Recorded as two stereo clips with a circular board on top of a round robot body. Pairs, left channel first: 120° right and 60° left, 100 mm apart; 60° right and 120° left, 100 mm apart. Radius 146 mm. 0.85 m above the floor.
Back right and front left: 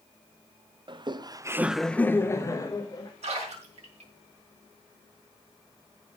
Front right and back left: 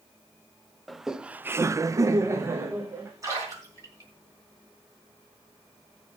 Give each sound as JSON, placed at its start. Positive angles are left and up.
{"t": 0.9, "sound": "laughter", "azimuth_deg": 30, "distance_m": 1.0}
{"t": 3.2, "sound": "a splash", "azimuth_deg": 60, "distance_m": 4.5}